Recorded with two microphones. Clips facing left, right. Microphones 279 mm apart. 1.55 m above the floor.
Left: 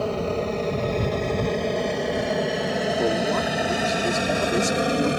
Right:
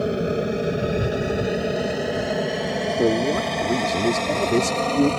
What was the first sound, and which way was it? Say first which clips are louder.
An aircraft: right 3 dB; 20° right (ahead or behind).